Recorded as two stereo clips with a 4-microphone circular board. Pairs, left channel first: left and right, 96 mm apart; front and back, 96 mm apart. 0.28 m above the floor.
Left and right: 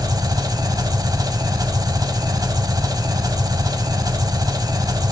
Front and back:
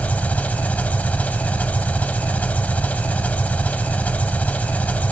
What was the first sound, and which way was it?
An engine running, 65° right.